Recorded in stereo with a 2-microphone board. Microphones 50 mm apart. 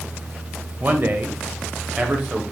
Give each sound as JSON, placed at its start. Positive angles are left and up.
{"t": 0.8, "sound": "a man speaking", "side_deg": -40, "distance_m": 1.3}